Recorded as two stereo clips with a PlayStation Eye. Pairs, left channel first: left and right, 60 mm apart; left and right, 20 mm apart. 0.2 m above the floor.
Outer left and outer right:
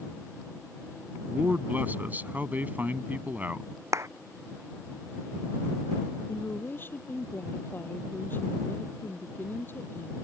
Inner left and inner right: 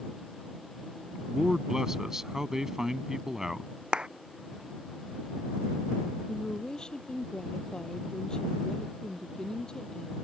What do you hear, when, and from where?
1.3 s a man speaking: 30° right (ahead or behind)
3.9 s a clap: 50° right (ahead or behind)
6.3 s a woman speaking: 35° left (ahead or behind)